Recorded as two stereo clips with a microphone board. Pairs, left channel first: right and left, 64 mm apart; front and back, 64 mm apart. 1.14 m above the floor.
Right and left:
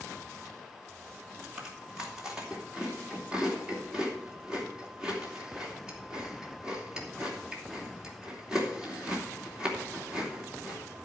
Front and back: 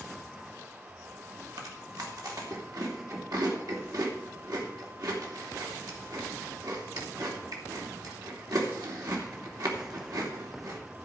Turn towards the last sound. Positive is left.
turn(degrees=165)